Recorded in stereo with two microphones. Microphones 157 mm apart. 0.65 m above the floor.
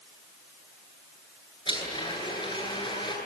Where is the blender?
30° left (ahead or behind), 9.5 m.